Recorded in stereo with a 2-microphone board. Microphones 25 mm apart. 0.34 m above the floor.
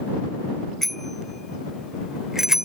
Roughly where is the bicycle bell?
Centre.